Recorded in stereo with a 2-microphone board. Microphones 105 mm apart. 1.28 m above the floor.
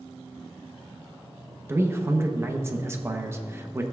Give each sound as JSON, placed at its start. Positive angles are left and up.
{"t": 1.7, "sound": "a man speaking", "side_deg": -25, "distance_m": 0.8}